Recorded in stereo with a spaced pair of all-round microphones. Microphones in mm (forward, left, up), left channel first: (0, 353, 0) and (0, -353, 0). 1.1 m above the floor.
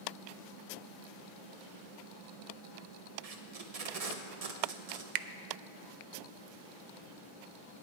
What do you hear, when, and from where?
3.2 s tape being pulled: 55° right (ahead or behind), 0.8 m
5.2 s a finger snap: 80° right, 0.6 m